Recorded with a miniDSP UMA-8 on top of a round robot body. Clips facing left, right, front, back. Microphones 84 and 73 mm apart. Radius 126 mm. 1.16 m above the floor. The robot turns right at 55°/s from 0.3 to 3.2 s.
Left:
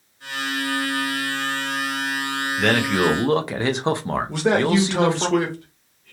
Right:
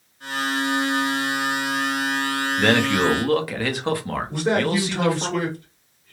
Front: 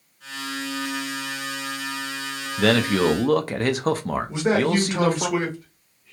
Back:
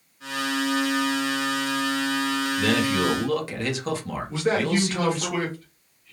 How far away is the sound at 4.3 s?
About 0.9 m.